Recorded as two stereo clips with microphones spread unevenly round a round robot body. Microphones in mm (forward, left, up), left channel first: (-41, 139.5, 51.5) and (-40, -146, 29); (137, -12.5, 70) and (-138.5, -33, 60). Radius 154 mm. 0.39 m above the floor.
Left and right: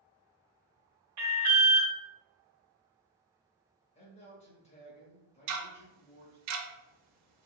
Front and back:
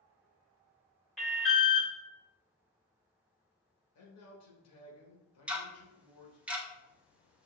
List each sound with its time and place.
1.2 s an alarm: 85° right, 1.1 m
4.0 s a man speaking: 20° left, 1.4 m
5.5 s ticking: 90° right, 0.7 m